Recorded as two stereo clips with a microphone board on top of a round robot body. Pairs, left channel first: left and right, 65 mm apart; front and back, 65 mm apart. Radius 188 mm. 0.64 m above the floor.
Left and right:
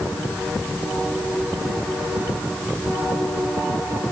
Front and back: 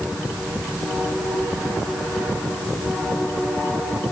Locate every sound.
Only background noise.